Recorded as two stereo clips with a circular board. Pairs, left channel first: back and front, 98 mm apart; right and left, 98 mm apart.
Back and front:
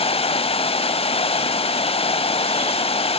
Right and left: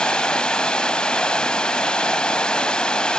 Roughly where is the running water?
Behind.